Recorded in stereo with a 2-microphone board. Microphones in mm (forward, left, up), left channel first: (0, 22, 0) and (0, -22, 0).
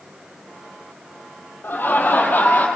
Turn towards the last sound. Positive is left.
turn(degrees=40)  # may be behind; listen again after turning